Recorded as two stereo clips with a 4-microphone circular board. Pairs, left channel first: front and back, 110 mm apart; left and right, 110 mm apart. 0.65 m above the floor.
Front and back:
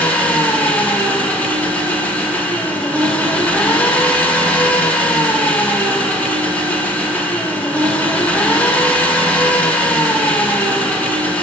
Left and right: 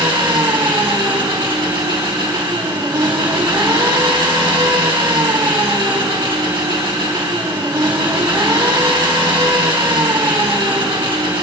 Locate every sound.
0.0 s an engine running: 70° right, 1.0 m